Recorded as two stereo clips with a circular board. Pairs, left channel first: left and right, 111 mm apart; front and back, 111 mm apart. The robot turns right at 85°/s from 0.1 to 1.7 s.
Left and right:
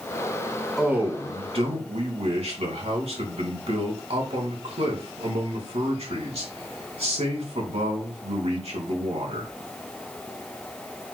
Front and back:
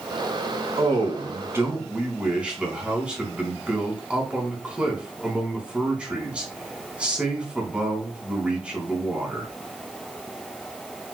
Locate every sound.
0.8 s a man speaking: straight behind, 3 m; by 9.5 s 100° right, 3 m